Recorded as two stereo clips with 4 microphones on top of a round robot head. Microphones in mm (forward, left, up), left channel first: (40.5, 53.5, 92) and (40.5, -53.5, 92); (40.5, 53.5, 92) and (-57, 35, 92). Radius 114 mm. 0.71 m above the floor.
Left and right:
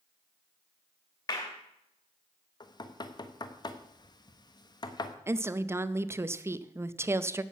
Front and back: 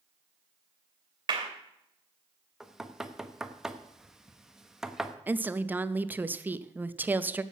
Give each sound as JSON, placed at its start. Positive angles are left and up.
{"t": 1.3, "sound": "a clap", "azimuth_deg": 145, "distance_m": 2.5}
{"t": 2.6, "sound": "knocking", "azimuth_deg": 105, "distance_m": 1.0}
{"t": 5.3, "sound": "a woman speaking", "azimuth_deg": -120, "distance_m": 0.6}